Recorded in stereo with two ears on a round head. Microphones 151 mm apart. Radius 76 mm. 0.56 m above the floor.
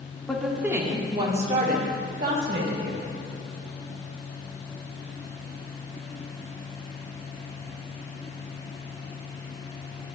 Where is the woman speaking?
5° left (ahead or behind), 1.2 m; by 3.1 s 65° right (ahead or behind), 2.5 m.